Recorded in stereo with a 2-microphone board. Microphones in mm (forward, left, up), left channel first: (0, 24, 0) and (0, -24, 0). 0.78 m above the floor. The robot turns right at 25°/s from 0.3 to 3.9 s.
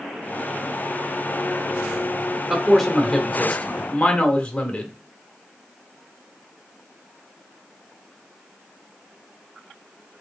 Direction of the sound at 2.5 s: 10° right.